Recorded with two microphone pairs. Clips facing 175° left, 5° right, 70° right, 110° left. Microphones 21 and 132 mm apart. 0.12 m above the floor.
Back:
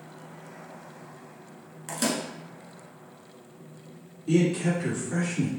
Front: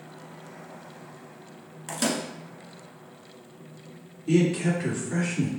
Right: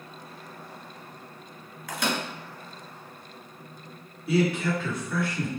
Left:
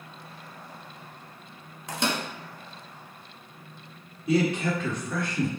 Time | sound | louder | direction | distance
1.9 | a microwave | front 1 dB, even | 70° left | 1.2 m
4.3 | a man speaking | front 1 dB, even | 75° left | 1.8 m